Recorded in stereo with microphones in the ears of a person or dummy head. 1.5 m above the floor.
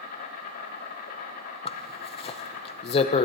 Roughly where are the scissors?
No scissors in this recording.